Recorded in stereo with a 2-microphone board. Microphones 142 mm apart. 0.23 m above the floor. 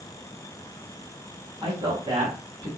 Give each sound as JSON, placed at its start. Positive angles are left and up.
{"t": 1.6, "sound": "a man speaking", "side_deg": -35, "distance_m": 1.8}